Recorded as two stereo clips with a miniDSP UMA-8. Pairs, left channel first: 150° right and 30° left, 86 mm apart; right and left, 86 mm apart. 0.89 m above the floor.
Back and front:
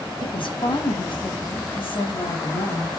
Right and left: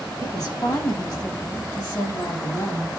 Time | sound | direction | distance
0.2 | a woman speaking | 135° right | 4 m